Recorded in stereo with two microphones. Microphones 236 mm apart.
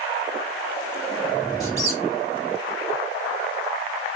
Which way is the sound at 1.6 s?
15° left (ahead or behind).